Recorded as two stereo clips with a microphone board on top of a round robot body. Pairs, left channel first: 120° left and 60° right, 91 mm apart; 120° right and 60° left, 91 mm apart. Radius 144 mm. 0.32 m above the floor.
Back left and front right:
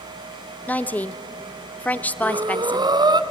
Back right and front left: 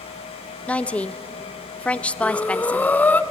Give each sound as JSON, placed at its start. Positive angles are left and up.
{"t": 0.7, "sound": "a woman speaking", "azimuth_deg": 175, "distance_m": 1.1}
{"t": 2.2, "sound": "breathing", "azimuth_deg": -50, "distance_m": 1.1}